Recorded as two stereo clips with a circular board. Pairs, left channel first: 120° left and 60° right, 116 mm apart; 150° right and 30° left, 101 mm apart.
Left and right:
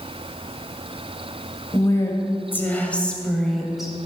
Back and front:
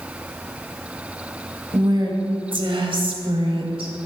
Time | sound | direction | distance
1.7 | a woman speaking | 65° left | 2.5 m